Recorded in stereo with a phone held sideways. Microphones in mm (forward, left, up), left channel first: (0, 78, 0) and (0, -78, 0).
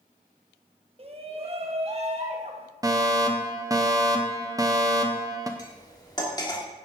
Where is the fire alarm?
20° right (ahead or behind), 1.1 m.